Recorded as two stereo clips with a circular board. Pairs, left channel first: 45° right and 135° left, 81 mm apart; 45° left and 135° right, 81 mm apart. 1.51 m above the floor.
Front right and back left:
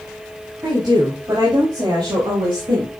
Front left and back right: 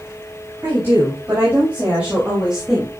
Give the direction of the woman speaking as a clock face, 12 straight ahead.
7 o'clock.